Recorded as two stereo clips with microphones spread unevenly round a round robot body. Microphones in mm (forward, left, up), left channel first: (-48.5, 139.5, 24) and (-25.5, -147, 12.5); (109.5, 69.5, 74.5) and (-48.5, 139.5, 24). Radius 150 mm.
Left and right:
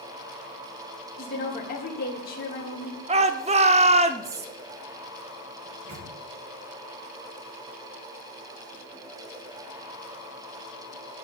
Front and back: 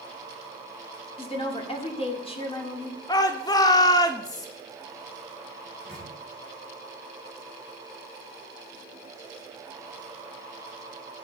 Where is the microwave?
115° right, 4 m.